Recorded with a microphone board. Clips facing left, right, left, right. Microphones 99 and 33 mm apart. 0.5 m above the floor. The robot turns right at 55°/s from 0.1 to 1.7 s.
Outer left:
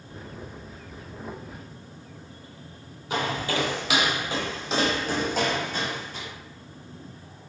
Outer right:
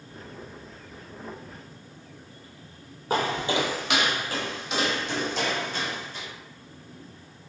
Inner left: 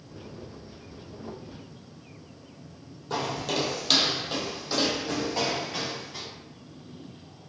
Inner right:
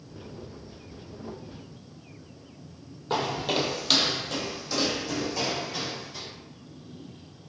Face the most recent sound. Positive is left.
turn(degrees=55)  # may be behind; listen again after turning